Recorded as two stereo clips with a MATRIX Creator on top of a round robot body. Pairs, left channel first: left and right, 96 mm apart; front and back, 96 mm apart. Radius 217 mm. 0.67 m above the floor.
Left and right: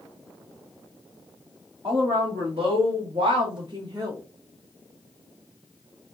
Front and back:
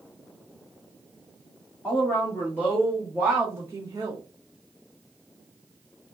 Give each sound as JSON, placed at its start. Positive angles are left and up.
{"t": 1.8, "sound": "a woman speaking", "azimuth_deg": -65, "distance_m": 1.6}